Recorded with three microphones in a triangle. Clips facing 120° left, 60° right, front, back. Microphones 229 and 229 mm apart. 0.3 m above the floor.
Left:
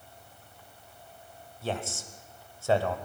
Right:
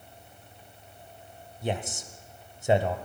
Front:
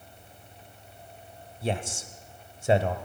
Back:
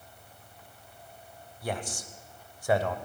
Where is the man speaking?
15° right, 1.1 m.